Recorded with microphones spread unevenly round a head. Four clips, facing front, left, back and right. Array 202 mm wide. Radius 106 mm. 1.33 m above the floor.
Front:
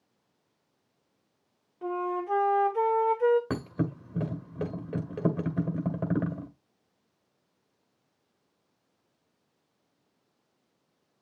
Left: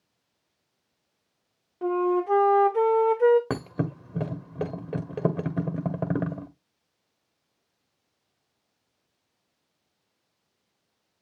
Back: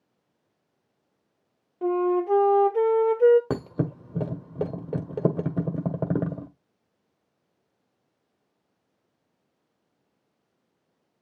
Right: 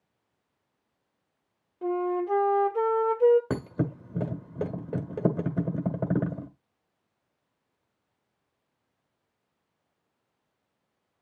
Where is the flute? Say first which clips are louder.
Left 4 dB, back 8 dB; 145° left, 2 m.